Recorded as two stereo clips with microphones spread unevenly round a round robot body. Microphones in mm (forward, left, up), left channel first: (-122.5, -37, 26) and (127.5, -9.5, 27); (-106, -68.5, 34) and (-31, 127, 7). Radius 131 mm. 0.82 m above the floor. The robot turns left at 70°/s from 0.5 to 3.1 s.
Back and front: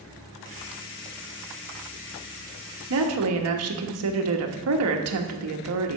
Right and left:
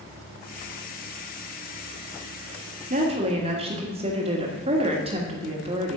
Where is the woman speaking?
25° left, 1.2 m; by 6.0 s 10° left, 1.2 m.